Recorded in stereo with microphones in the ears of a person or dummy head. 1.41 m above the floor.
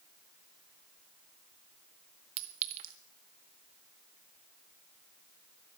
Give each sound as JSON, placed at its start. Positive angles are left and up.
{"t": 2.4, "sound": "a clink", "side_deg": -35, "distance_m": 0.8}